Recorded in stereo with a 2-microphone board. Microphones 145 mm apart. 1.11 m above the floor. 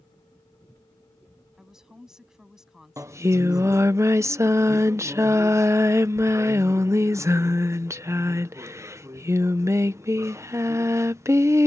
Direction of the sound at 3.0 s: 20° right (ahead or behind).